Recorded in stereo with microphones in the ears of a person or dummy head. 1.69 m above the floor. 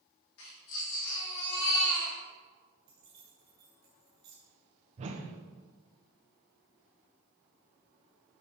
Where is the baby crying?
80° left, 3 m.